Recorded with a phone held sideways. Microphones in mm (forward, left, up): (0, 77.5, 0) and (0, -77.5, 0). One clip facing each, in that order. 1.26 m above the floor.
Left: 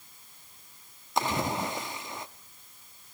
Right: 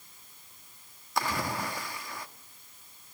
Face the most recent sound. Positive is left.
turn(degrees=20)  # may be behind; listen again after turning